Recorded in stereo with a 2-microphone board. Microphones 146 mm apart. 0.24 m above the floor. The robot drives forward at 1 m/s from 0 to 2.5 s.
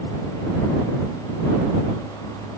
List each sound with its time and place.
Only background noise.